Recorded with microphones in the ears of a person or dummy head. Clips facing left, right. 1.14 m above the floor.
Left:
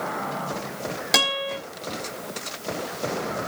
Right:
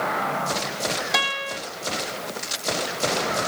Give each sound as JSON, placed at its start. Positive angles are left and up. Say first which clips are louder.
{"t": 1.1, "sound": "a guitar", "louder": "left 2 dB", "side_deg": 40, "distance_m": 4.0}